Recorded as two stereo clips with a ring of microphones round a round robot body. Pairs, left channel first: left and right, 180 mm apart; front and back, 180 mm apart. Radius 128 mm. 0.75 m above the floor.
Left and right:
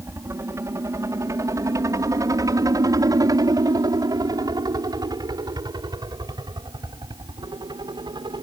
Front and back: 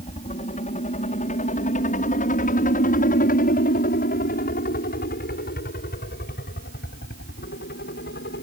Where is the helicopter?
25° right; by 8.4 s 30° right.